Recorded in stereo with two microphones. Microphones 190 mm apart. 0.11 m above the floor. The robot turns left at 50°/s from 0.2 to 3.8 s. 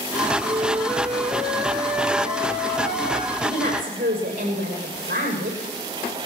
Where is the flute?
150° right, 8 m; by 3.3 s 65° left, 8 m.